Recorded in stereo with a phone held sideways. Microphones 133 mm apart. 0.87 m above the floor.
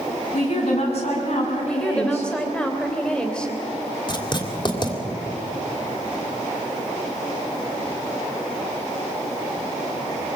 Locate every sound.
0.3 s a woman speaking: 50° left (ahead or behind), 7 m
1.7 s a woman speaking: 5° left (ahead or behind), 3.5 m
4.1 s writing: 35° left (ahead or behind), 2.5 m